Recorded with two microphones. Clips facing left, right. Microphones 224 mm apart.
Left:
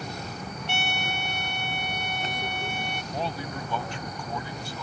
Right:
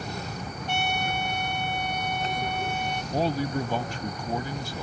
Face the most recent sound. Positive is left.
turn(degrees=-40)  # may be behind; listen again after turning